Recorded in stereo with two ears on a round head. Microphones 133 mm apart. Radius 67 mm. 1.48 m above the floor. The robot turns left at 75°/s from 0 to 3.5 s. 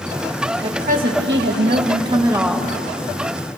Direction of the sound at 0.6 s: 40° right.